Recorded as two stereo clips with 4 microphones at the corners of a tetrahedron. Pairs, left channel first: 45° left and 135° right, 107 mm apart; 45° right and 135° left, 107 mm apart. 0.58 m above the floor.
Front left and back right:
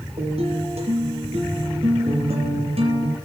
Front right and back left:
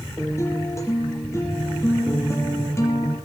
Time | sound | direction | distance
0.2 | a guitar | 110° right | 6 m